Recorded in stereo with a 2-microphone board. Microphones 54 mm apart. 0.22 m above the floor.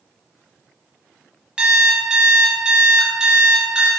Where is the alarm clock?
20° right (ahead or behind), 0.6 m.